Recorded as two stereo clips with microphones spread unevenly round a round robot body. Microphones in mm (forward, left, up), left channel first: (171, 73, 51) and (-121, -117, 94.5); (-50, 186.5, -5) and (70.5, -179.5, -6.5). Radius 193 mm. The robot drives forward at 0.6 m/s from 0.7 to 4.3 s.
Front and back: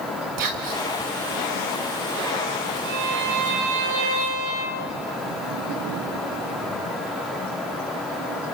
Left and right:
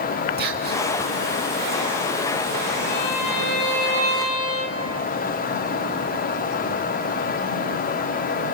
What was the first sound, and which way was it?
Whispering, 135° right.